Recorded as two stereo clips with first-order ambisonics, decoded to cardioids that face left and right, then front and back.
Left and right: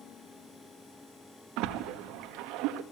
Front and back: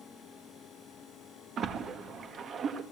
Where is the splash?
120° right, 1.8 m.